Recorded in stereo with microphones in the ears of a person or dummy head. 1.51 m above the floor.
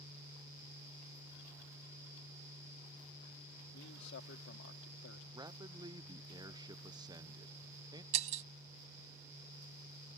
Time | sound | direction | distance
3.7 | a man speaking | 60° left (ahead or behind) | ?
5.3 | a man speaking | 15° right (ahead or behind) | ?
8.1 | breaking glass | 45° right (ahead or behind) | ?